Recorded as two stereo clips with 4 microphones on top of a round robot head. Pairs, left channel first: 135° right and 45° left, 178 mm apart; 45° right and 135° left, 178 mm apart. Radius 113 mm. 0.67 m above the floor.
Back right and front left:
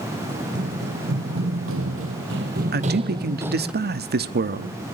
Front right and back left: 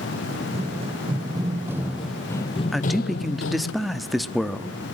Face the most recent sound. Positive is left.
turn(degrees=45)